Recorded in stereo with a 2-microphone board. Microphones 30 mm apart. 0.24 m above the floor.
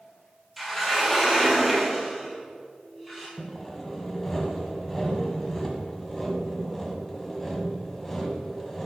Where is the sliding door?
5° left (ahead or behind), 2.5 m.